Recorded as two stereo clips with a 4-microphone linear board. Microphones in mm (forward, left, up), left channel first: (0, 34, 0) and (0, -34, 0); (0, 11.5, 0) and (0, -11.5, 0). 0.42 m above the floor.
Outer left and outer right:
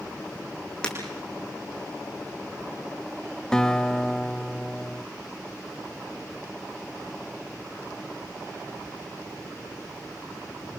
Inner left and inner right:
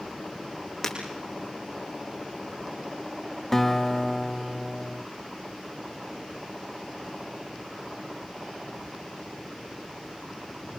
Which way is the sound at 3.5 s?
10° left (ahead or behind).